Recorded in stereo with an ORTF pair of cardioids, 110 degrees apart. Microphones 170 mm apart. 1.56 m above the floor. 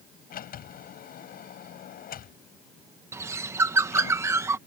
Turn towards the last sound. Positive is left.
turn(degrees=-15)